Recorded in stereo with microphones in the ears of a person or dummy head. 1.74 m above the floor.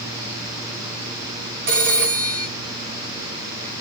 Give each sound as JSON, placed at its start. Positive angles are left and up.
{"t": 1.7, "sound": "a phone ringing", "side_deg": -60, "distance_m": 2.5}